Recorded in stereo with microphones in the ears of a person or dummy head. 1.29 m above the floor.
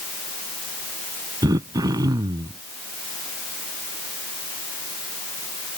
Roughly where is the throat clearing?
Right.